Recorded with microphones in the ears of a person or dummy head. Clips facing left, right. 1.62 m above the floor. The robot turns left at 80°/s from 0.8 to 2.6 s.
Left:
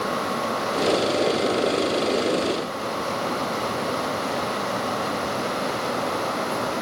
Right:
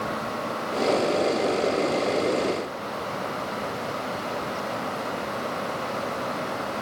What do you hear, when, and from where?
Only background noise.